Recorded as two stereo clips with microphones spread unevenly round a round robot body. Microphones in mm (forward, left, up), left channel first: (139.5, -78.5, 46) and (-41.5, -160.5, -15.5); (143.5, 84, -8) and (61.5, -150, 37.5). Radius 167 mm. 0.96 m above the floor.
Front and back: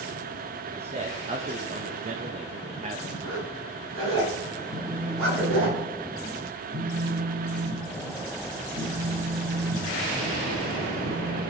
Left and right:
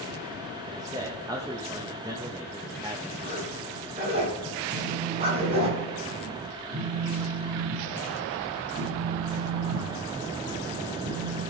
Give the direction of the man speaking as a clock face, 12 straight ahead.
6 o'clock.